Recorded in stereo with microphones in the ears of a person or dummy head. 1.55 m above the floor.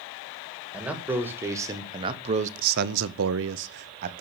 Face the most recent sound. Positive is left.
turn(degrees=-45)  # may be behind; listen again after turning